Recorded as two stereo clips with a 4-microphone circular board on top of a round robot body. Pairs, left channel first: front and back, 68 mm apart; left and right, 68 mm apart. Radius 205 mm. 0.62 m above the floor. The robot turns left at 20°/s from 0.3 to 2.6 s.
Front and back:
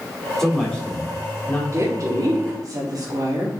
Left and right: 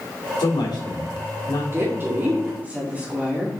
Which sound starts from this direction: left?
A man speaking, at 0.4 s.